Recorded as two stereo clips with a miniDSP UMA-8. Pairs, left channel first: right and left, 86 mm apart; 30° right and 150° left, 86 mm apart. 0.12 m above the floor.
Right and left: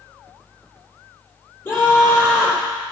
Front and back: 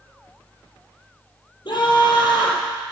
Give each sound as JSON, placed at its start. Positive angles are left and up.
{"t": 1.6, "sound": "a scream", "azimuth_deg": -30, "distance_m": 4.0}